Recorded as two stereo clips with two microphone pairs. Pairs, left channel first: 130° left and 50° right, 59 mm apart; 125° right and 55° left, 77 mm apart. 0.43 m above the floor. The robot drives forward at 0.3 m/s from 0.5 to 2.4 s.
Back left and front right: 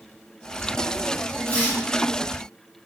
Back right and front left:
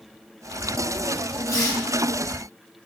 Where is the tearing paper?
165° right, 1.5 m.